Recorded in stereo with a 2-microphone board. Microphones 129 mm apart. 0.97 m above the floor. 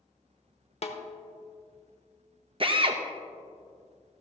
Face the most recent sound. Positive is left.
turn(degrees=-45)  # may be behind; listen again after turning